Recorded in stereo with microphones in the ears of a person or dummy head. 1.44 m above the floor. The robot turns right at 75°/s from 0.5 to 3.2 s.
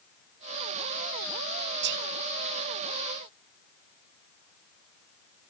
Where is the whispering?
55° right (ahead or behind); by 2.1 s 70° right (ahead or behind).